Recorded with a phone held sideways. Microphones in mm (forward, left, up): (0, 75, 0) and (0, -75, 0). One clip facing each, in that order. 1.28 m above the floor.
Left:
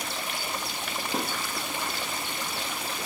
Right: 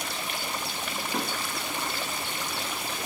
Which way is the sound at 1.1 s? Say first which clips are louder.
Left 1 dB; 25° left (ahead or behind).